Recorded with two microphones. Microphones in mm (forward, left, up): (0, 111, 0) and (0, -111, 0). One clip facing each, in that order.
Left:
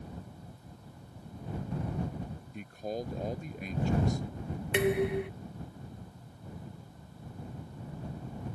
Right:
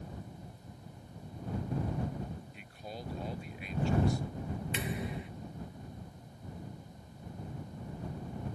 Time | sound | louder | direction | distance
2.5 | a man speaking | left 9 dB | 45° left (ahead or behind) | ?
4.7 | dishes clattering | left 15 dB | 70° left (ahead or behind) | ?